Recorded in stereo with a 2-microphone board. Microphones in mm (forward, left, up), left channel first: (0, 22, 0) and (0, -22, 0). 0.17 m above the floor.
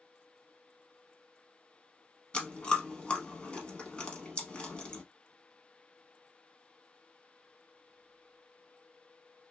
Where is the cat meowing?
I don't hear a cat meowing.